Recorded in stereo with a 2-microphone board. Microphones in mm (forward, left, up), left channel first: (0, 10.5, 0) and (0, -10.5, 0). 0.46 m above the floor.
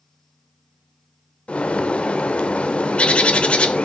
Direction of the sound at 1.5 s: 60° left (ahead or behind).